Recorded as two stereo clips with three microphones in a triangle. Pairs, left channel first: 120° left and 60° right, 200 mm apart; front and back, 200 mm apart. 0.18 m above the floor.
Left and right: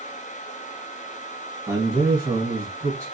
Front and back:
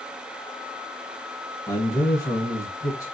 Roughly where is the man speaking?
Ahead right.